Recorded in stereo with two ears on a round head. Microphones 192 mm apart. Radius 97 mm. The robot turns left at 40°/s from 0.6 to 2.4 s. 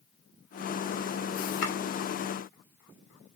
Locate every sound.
1.6 s chopping: 85° left, 1.4 m